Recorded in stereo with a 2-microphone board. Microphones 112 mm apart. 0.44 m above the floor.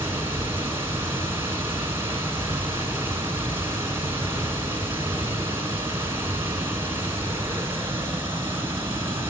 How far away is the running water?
About 1.8 m.